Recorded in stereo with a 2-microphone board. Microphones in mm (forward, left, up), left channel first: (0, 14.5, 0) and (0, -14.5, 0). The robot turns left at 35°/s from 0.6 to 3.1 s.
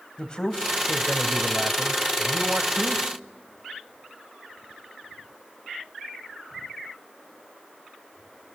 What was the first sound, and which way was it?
A man speaking, 30° left.